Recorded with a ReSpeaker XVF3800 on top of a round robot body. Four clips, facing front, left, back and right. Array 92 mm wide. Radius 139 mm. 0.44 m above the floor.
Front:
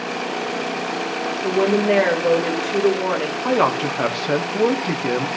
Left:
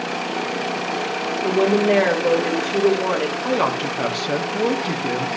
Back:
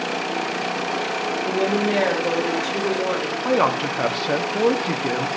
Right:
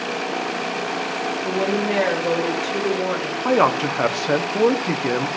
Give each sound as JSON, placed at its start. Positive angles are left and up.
{"t": 1.4, "sound": "a woman speaking", "azimuth_deg": 45, "distance_m": 2.0}
{"t": 3.5, "sound": "a man speaking", "azimuth_deg": -75, "distance_m": 0.8}